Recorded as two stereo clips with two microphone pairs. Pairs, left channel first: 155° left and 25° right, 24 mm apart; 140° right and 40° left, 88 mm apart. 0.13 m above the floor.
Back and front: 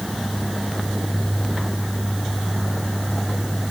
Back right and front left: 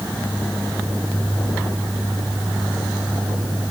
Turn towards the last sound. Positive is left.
No sound to turn to.